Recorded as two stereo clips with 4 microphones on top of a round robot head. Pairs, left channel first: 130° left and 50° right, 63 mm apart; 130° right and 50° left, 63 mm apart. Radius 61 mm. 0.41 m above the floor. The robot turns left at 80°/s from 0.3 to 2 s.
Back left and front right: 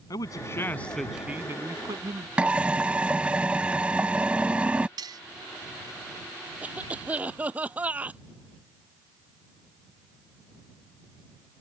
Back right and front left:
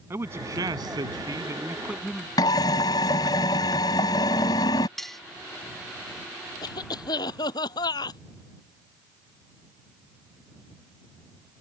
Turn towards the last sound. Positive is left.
turn(degrees=-115)